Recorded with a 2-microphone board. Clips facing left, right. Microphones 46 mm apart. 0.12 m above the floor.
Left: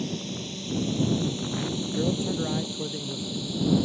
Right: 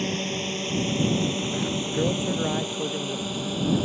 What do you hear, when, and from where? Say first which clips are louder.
0.0 s a drone: right 5 dB; 50° right (ahead or behind); by 3.9 s 45° right (ahead or behind)
1.9 s a man speaking: right 1 dB; 20° right (ahead or behind)